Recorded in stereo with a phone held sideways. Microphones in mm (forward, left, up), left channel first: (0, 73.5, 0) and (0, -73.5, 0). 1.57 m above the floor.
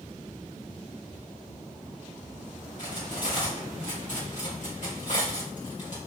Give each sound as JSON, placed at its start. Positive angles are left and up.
{"t": 2.8, "sound": "cutlery clinking", "side_deg": 60, "distance_m": 2.0}